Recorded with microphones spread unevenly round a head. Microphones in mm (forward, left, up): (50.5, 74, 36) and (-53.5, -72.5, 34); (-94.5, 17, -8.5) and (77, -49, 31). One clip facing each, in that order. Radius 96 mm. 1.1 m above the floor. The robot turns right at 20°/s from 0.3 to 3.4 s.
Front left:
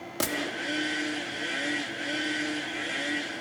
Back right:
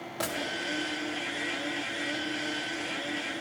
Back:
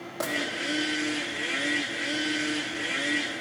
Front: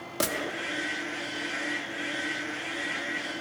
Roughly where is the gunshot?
Ahead.